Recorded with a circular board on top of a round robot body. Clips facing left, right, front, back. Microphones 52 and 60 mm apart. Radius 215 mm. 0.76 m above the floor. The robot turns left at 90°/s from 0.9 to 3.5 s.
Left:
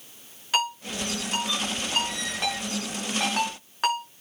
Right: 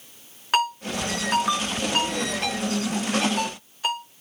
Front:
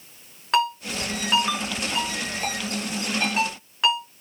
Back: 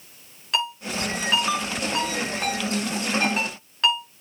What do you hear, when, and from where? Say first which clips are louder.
0.5 s a ringtone: right 4 dB, front 4 dB; 50° right, 6.5 m; by 4.0 s 75° left, 6.5 m